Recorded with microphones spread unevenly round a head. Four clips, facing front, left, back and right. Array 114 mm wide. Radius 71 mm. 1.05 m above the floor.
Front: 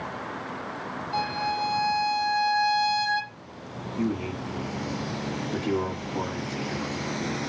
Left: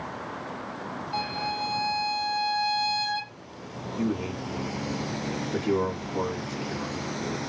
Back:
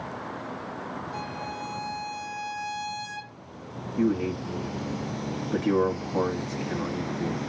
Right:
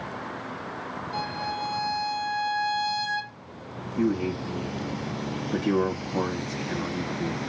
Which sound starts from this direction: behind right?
A man speaking, at 4.0 s.